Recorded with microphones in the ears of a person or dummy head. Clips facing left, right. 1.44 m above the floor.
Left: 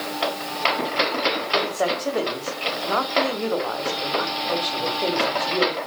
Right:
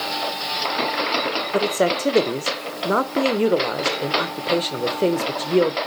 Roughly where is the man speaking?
Right.